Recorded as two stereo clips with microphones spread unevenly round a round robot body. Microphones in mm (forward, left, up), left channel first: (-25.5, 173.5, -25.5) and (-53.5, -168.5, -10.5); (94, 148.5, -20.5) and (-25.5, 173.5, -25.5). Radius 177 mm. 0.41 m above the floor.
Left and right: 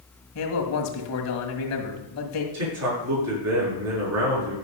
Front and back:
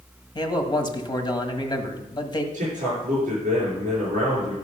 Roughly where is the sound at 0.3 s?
Ahead left.